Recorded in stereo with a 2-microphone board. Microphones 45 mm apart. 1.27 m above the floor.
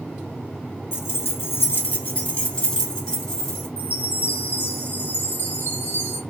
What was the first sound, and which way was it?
Keys jangling, 60° left (ahead or behind).